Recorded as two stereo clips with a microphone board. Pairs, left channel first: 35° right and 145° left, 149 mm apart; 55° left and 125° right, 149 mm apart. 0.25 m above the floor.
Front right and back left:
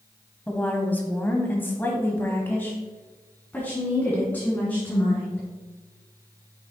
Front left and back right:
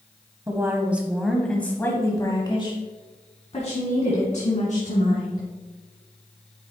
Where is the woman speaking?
100° right, 1.1 m; by 5.5 s 45° left, 2.5 m.